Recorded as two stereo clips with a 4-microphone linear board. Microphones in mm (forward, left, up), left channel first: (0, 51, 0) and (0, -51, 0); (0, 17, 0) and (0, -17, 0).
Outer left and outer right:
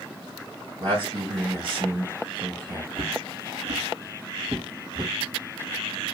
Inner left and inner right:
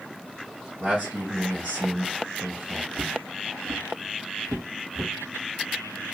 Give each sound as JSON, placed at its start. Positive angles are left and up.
{"t": 0.8, "sound": "a man speaking", "side_deg": -50, "distance_m": 2.5}
{"t": 3.0, "sound": "footsteps", "side_deg": -55, "distance_m": 0.9}